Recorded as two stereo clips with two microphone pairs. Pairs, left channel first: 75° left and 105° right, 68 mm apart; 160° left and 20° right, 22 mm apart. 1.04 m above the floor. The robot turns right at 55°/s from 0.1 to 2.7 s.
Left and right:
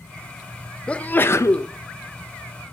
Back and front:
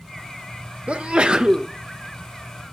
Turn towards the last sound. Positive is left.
turn(degrees=100)